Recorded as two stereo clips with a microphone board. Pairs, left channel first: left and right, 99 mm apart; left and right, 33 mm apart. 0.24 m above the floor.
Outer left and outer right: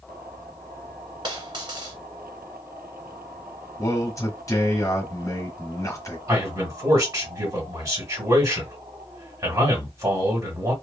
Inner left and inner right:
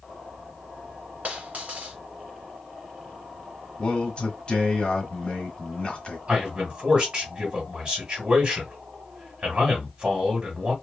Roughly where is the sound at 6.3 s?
Right.